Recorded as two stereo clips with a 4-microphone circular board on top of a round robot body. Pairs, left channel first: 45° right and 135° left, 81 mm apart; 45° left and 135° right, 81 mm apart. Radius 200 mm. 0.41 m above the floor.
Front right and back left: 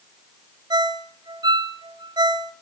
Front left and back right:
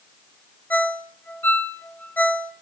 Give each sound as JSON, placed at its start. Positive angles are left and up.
{"t": 0.7, "sound": "a ringtone", "azimuth_deg": 115, "distance_m": 1.7}